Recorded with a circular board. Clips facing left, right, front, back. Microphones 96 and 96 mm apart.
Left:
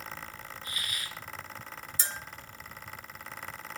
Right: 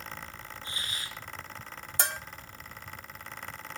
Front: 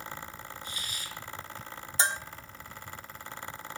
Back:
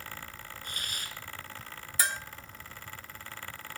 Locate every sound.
0.6 s a hiss: 150° right, 2 m
2.0 s a bell: 65° right, 1.2 m